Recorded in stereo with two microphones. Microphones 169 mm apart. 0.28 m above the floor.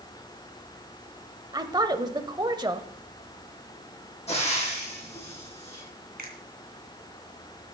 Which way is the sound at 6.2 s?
65° right (ahead or behind).